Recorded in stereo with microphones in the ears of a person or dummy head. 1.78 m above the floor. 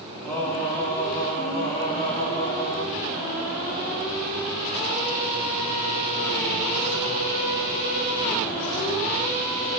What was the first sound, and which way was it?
Singing, 10° left (ahead or behind).